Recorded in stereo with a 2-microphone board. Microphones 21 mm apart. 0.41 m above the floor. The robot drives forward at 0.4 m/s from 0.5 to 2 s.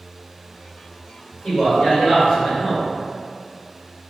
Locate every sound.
1.4 s a man speaking: 45° left (ahead or behind), 1.5 m